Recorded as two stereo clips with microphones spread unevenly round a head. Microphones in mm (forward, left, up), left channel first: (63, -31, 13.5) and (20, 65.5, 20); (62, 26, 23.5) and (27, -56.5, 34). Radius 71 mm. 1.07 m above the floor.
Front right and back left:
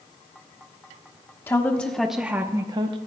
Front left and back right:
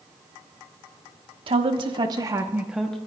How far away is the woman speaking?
About 1.1 m.